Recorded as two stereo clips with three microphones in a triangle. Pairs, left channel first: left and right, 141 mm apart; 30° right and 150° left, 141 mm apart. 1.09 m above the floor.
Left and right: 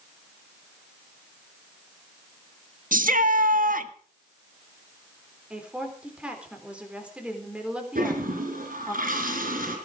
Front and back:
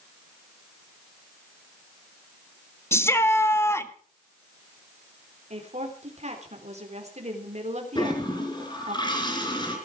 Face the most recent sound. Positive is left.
turn(degrees=-90)